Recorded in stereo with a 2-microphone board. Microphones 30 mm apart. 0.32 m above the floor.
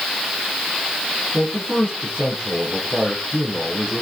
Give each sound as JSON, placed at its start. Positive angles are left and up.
{"t": 1.3, "sound": "a man speaking", "side_deg": 40, "distance_m": 10.0}